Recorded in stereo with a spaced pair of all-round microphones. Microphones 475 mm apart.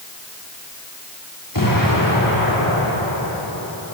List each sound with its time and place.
1.5 s an explosion: 40° left (ahead or behind), 8.5 m